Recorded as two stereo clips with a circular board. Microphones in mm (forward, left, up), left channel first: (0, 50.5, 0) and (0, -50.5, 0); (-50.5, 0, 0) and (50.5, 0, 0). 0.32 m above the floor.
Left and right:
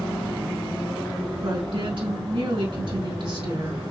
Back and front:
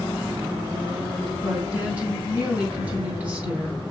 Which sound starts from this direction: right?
A woman speaking, at 1.4 s.